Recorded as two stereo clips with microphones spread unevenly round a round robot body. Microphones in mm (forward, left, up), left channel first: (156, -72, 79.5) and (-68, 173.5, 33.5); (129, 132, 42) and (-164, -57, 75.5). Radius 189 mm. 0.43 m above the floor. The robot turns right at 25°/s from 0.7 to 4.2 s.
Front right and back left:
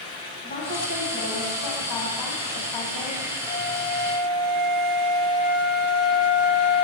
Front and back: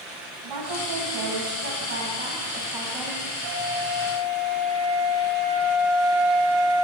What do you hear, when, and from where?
0.4 s a woman speaking: 115° right, 3 m; by 3.3 s 50° right, 3 m
3.4 s a flute: 20° left, 6 m; by 6.8 s 40° left, 6 m